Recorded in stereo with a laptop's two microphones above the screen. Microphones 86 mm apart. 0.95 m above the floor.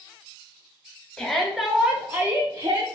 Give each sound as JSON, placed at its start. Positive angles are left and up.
{"t": 1.2, "sound": "a shout", "side_deg": 10, "distance_m": 1.0}